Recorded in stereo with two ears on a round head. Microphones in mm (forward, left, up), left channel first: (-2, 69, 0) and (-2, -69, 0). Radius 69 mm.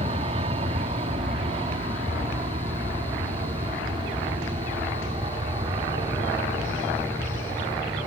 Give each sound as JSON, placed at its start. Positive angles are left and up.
{"t": 0.0, "sound": "an aircraft", "side_deg": -40}